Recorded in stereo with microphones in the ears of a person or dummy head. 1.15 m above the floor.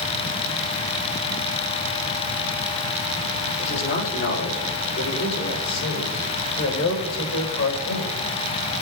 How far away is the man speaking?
About 3 m.